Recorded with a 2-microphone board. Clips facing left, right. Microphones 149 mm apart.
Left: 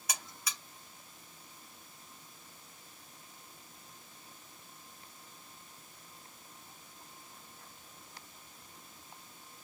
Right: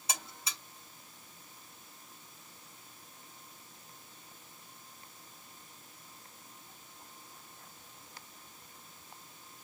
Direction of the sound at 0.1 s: 25° right (ahead or behind).